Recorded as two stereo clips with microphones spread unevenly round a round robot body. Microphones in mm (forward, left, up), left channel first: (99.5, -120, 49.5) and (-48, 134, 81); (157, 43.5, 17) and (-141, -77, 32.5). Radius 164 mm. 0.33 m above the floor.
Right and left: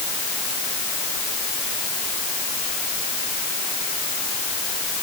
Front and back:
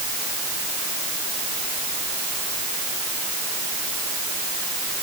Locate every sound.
Only background noise.